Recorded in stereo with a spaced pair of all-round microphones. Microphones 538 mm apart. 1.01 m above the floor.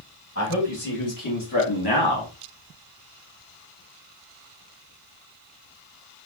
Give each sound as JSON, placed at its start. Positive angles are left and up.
{"t": 0.3, "sound": "a man speaking", "side_deg": 30, "distance_m": 2.0}